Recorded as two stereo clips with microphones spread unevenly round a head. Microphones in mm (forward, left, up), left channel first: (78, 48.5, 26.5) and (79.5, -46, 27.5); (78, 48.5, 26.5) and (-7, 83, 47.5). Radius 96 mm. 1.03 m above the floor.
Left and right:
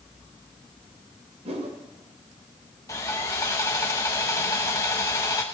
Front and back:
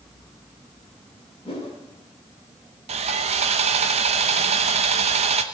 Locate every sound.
1.4 s a whoosh: 85° right, 2.5 m
2.9 s sawing: 160° left, 0.8 m